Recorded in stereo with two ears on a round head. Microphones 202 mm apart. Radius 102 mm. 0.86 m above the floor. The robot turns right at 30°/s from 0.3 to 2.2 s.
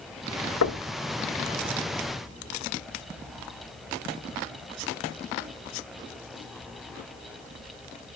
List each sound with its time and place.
0.6 s knocking: 70° left (ahead or behind), 1.9 m; by 0.8 s 75° left (ahead or behind), 1.9 m